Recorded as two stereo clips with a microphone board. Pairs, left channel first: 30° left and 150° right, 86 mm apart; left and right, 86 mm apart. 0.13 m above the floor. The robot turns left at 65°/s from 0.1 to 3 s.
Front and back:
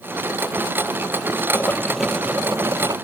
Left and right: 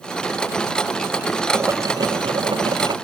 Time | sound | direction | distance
1.5 | boiling | 30° right | ?